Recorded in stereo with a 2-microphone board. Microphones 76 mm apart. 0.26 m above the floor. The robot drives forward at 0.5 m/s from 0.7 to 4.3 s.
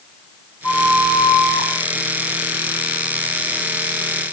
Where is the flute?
20° left (ahead or behind), 9 m.